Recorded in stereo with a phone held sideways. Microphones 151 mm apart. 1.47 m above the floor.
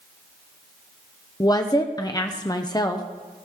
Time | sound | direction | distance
1.4 | a woman speaking | 25° left (ahead or behind) | 0.7 m